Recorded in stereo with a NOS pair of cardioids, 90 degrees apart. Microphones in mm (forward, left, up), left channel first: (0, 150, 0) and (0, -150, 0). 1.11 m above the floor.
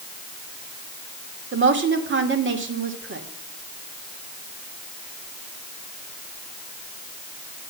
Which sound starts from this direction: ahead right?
A woman speaking, at 1.5 s.